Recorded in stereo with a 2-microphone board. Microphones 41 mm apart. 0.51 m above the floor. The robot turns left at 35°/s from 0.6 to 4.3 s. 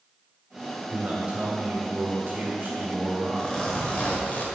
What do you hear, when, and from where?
0.9 s a man speaking: 40° right, 1.6 m; by 3.7 s 140° right, 1.6 m
3.3 s a zipper: 170° left, 1.4 m; by 4.5 s 135° left, 1.4 m